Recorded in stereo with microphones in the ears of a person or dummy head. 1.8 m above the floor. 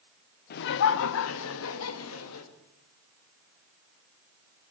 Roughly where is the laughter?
Left.